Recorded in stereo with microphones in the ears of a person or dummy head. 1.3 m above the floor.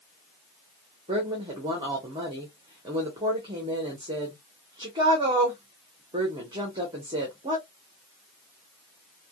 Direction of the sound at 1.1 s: 25° right (ahead or behind).